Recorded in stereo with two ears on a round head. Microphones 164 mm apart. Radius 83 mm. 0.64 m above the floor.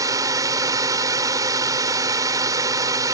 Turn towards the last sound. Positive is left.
turn(degrees=-20)  # may be behind; listen again after turning